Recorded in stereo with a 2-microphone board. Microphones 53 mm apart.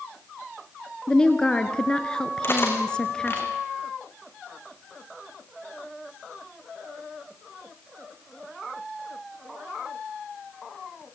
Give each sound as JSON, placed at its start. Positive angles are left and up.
{"t": 1.1, "sound": "a woman speaking", "side_deg": 20, "distance_m": 1.5}
{"t": 2.4, "sound": "cutlery clinking", "side_deg": 45, "distance_m": 4.5}